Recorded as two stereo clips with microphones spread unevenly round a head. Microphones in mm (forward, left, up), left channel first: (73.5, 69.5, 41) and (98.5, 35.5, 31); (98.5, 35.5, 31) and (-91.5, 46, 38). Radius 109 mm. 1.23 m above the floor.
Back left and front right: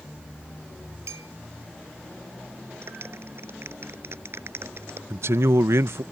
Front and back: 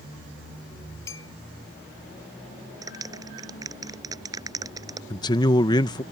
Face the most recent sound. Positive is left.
turn(degrees=-75)